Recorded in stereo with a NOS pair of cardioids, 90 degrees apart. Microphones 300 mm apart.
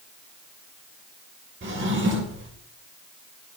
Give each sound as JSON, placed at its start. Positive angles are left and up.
{"t": 1.6, "sound": "a drawer", "azimuth_deg": -40, "distance_m": 2.5}